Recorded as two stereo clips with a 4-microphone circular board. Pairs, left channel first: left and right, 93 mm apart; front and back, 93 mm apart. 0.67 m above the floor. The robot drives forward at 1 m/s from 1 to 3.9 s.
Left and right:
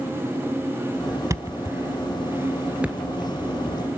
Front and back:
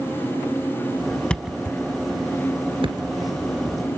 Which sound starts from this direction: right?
A thud, at 1.3 s.